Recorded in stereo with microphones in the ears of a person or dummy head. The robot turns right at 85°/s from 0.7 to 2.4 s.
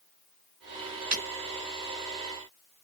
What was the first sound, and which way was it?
Breaking glass, 25° right (ahead or behind).